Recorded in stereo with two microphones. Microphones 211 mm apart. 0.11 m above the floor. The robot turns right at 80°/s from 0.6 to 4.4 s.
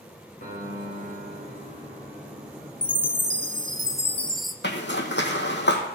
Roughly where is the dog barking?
I don't hear a dog barking.